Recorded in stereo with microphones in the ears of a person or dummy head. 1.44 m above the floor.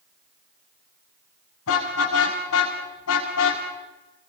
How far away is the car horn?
About 6.5 m.